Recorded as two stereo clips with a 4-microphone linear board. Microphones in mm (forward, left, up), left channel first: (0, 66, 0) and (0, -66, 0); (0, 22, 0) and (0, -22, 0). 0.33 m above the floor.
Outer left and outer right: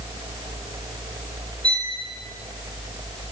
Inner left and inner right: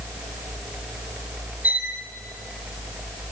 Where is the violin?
35° right (ahead or behind), 2.5 m.